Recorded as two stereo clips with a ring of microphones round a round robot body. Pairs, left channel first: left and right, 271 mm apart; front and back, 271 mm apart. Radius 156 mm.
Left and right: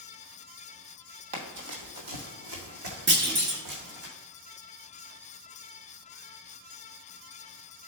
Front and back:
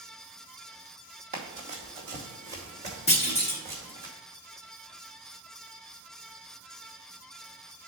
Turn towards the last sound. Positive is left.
turn(degrees=-60)